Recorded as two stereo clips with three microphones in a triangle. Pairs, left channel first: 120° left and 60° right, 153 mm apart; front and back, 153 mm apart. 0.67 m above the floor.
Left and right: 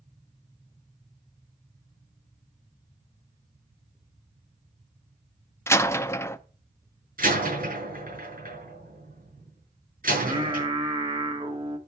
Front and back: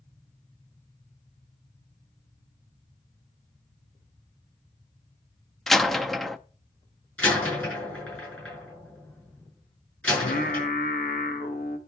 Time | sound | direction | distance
5.7 | a door slam | 85° left | 0.6 m
7.2 | a door slam | 80° right | 6 m
10.1 | singing | 5° right | 1.3 m